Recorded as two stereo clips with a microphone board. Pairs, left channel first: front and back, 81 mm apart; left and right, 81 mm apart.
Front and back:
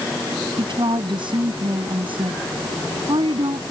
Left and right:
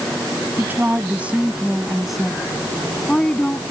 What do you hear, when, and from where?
0.6 s a woman speaking: 155° right; by 3.6 s 165° left